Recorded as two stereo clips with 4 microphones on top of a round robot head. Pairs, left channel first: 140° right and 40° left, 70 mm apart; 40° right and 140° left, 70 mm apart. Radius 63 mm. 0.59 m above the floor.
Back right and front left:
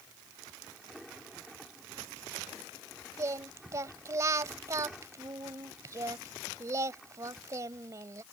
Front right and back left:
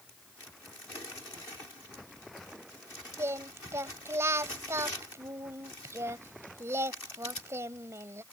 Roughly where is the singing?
Left.